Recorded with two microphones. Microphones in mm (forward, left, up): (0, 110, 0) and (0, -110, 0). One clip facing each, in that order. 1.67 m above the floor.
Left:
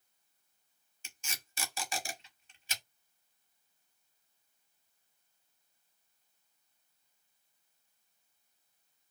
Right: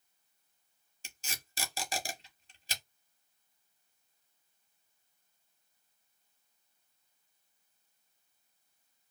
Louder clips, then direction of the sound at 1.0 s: Right 2 dB; 35° right (ahead or behind).